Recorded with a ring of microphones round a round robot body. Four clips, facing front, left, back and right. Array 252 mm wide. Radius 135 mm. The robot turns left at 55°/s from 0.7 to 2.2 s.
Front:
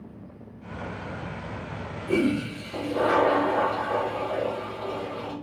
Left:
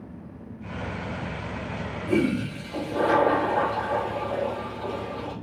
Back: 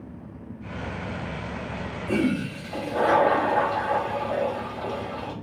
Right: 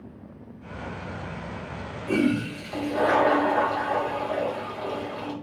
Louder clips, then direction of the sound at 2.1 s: Right 1 dB, front 1 dB; 125° right.